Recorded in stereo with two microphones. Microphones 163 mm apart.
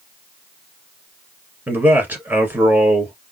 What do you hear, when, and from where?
1.7 s a man speaking: 15° right (ahead or behind), 1.2 m